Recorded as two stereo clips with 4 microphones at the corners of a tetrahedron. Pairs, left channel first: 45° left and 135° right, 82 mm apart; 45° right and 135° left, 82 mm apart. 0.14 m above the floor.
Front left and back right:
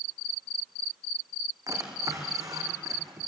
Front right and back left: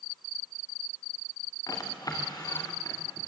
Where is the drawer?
90° right, 3.5 m.